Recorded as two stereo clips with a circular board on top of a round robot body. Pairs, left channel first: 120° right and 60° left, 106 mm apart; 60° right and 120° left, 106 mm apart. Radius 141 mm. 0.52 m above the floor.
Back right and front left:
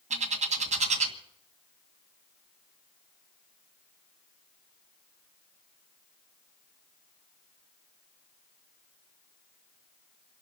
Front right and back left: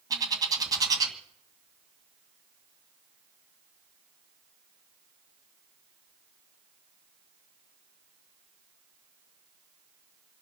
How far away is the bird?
About 2 m.